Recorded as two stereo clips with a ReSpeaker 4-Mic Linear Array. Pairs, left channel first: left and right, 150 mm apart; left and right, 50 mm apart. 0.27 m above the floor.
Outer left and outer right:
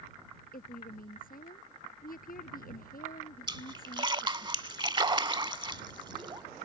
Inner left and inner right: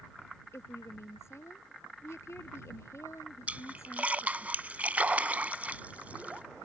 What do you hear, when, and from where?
0.5 s a woman speaking: 75° left (ahead or behind)
3.5 s a splash: 30° right (ahead or behind)